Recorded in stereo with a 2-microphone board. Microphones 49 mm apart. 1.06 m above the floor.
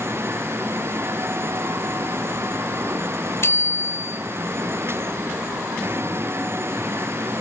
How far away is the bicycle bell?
About 4 m.